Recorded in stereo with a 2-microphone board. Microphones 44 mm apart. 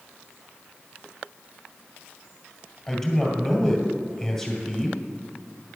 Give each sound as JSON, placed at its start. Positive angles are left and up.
{"t": 2.9, "sound": "a man speaking", "side_deg": 15, "distance_m": 2.0}